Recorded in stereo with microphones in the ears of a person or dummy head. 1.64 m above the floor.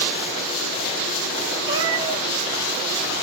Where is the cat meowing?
30° right (ahead or behind), 3 m.